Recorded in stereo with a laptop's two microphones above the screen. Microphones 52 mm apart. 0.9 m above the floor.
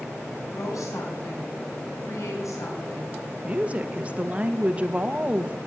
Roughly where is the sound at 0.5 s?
Left.